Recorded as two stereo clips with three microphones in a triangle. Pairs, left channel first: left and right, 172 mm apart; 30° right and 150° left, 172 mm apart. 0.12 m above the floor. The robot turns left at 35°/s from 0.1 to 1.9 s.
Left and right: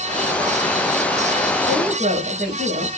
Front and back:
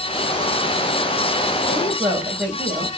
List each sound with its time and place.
1.7 s a woman speaking: 125° right, 5 m; by 2.9 s 135° right, 5 m